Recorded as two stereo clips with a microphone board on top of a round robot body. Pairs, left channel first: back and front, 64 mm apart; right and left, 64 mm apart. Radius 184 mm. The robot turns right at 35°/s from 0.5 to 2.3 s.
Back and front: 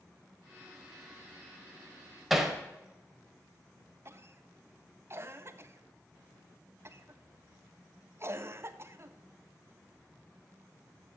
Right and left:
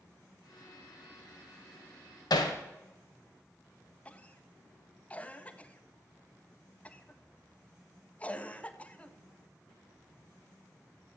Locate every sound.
2.3 s hammering: 85° right, 1.6 m
4.0 s a cough: 30° right, 1.5 m